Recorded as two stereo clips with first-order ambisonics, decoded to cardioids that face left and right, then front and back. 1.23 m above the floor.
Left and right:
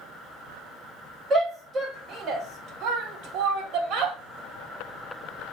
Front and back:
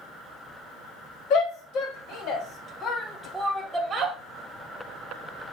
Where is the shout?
25° right, 1.3 m; by 4.2 s 125° right, 0.8 m.